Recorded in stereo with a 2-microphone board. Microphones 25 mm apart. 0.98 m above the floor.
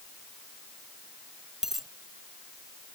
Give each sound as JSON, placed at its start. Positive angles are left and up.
{"t": 1.6, "sound": "a dropped coin", "side_deg": -15}